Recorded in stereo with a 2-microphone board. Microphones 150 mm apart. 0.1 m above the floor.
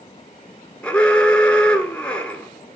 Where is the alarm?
10° left (ahead or behind), 1.8 m.